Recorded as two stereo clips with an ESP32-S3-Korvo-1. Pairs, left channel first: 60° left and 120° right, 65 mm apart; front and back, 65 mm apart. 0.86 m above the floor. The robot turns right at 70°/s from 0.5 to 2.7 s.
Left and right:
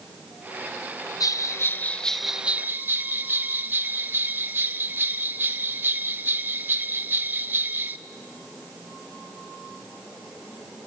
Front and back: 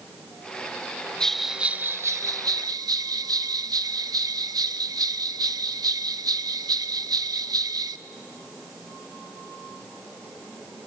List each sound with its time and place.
1.2 s a bell: 80° left, 0.6 m; by 8.0 s 175° right, 0.6 m